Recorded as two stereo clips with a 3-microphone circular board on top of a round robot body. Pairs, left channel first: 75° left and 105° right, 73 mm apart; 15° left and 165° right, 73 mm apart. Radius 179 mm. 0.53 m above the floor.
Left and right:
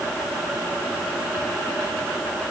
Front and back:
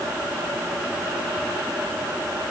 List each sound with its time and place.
Only background noise.